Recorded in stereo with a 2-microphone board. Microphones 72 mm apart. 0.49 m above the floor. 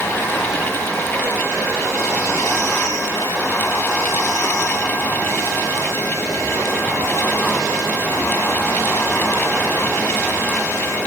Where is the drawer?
I don't hear a drawer.